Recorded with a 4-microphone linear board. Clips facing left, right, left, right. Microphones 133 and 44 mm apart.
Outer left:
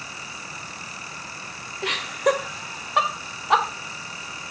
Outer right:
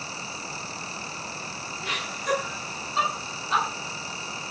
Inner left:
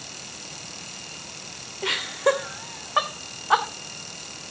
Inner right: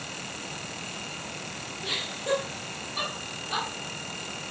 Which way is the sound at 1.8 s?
80° left.